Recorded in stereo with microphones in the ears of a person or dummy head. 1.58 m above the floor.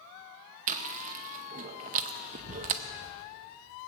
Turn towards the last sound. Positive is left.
turn(degrees=-40)  # may be behind; listen again after turning